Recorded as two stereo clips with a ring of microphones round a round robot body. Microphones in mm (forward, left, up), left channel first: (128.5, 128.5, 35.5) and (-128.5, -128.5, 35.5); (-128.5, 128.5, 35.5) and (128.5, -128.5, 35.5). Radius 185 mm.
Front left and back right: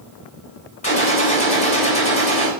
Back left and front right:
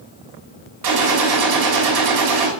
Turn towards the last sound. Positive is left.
turn(degrees=-25)